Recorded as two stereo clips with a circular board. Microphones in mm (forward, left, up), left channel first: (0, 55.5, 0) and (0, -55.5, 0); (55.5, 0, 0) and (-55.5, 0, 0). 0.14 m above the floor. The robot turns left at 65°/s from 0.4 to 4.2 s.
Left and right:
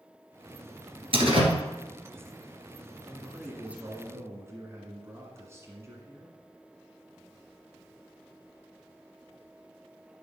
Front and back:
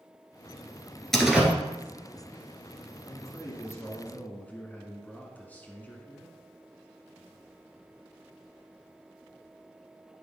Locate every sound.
1.1 s a door slam: 85° right, 1.8 m; by 1.5 s 110° right, 1.8 m
3.1 s a man speaking: 15° left, 1.7 m; by 6.3 s 60° right, 1.7 m